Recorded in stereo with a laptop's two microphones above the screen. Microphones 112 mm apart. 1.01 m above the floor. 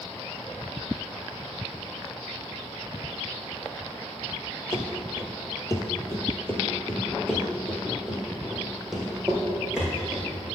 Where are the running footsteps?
35° left (ahead or behind), 1.2 m; by 10.3 s 10° right (ahead or behind), 2.5 m.